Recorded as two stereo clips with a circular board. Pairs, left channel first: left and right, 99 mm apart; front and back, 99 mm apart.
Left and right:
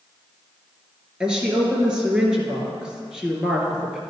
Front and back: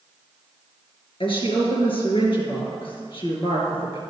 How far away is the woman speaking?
About 2 m.